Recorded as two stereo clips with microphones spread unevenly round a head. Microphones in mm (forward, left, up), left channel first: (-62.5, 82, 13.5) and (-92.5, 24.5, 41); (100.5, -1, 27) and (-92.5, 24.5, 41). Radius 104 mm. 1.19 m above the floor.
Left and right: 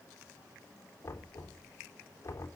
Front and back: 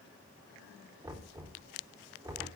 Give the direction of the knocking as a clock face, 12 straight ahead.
9 o'clock.